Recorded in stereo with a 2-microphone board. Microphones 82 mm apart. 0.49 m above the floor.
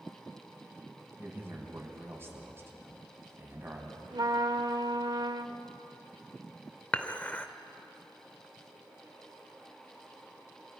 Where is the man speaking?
30° right (ahead or behind), 3.5 m.